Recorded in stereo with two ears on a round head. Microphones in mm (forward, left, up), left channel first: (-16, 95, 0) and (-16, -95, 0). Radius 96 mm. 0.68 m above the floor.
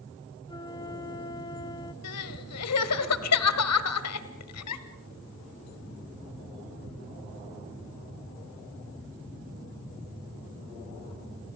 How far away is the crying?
About 1.7 m.